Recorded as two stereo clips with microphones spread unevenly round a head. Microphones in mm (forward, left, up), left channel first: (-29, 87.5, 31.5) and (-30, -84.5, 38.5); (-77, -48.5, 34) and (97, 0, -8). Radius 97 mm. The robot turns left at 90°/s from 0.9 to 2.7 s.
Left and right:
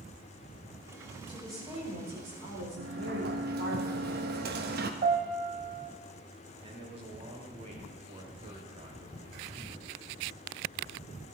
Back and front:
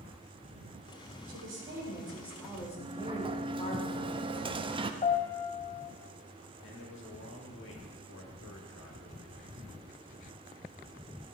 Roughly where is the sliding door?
Ahead right.